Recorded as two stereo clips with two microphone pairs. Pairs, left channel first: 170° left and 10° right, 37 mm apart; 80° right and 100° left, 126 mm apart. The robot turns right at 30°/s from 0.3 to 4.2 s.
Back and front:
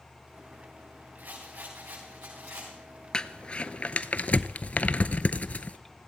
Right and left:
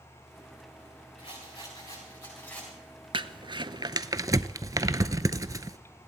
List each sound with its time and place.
1.2 s a rattle: 50° right, 7 m; by 2.7 s 5° right, 7 m
3.1 s crumpling: 115° left, 0.6 m; by 5.8 s 145° left, 0.6 m